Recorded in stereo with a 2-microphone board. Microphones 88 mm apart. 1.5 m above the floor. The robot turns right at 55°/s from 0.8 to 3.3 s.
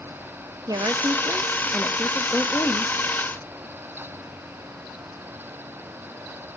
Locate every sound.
0.7 s a woman speaking: 60° right, 0.6 m; by 2.9 s 60° left, 0.6 m